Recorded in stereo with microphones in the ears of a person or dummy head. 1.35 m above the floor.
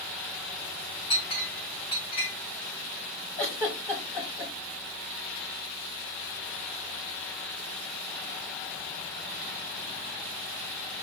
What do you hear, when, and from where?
1.1 s a clink: 25° left (ahead or behind), 1.2 m
3.4 s a giggle: 15° left (ahead or behind), 1.6 m